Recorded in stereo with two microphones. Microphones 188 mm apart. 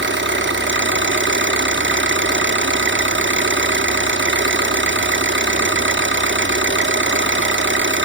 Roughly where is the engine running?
Right.